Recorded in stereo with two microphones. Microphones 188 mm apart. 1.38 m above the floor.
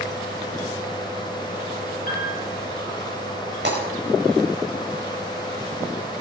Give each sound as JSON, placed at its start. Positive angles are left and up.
{"t": 2.1, "sound": "a piano", "side_deg": 45, "distance_m": 6.5}
{"t": 3.6, "sound": "breaking glass", "side_deg": -75, "distance_m": 4.5}